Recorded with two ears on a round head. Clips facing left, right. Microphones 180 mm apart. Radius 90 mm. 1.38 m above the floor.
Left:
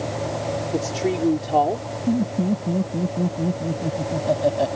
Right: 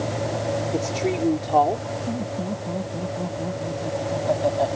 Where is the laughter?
35° left (ahead or behind).